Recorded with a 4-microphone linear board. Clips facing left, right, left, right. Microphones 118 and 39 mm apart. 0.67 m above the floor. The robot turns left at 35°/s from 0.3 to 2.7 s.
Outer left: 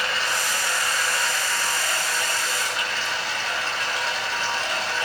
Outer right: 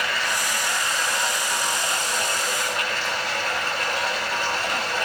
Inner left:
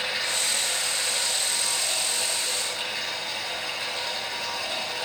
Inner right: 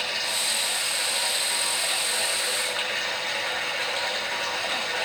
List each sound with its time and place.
0.0 s running water: 30° left, 6.5 m; by 5.0 s 55° right, 6.5 m